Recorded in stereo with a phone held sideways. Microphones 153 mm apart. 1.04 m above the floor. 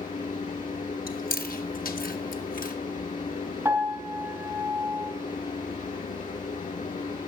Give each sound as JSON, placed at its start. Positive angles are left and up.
{"t": 0.0, "sound": "a fan", "side_deg": 55, "distance_m": 6.5}
{"t": 1.1, "sound": "chewing", "side_deg": 65, "distance_m": 1.6}
{"t": 3.6, "sound": "a piano", "side_deg": -15, "distance_m": 4.0}